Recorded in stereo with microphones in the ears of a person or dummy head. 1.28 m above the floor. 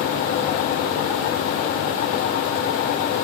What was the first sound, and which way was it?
Only background noise.